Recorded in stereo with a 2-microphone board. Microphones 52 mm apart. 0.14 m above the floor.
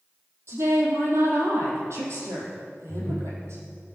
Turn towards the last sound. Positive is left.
turn(degrees=45)  # may be behind; listen again after turning